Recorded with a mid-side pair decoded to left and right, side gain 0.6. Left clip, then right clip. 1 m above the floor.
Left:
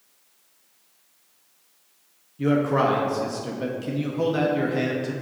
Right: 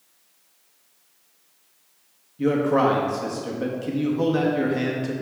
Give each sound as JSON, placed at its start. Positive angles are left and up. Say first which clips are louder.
{"t": 2.4, "sound": "a man speaking", "louder": "right 1 dB", "azimuth_deg": 5, "distance_m": 1.0}